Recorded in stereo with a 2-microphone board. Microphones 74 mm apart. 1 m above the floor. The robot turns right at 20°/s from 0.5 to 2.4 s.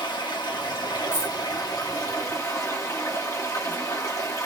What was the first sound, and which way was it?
Running water, 95° left.